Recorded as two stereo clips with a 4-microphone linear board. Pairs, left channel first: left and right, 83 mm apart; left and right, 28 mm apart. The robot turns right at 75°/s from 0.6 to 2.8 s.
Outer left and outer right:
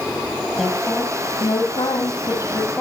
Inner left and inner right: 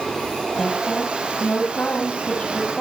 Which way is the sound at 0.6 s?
5° right.